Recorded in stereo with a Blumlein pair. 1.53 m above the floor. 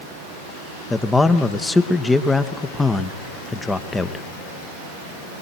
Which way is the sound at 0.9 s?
5° left.